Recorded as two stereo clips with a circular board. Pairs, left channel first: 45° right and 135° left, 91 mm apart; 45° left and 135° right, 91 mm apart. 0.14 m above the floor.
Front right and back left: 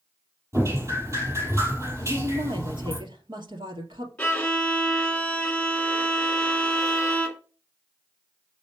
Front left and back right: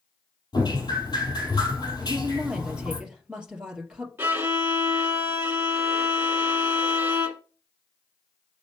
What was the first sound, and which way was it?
Dripping, 80° left.